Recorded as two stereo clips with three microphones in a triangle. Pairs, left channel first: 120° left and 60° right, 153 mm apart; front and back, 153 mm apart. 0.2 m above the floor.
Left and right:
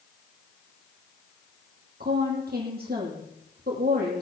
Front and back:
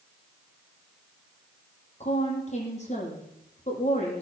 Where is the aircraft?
No aircraft in this recording.